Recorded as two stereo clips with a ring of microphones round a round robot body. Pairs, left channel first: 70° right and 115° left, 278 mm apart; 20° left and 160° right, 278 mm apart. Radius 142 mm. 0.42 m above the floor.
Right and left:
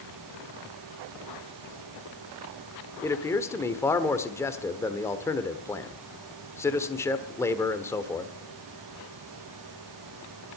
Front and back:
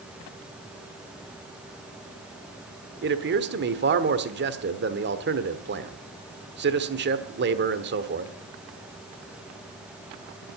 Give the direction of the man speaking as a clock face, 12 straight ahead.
5 o'clock.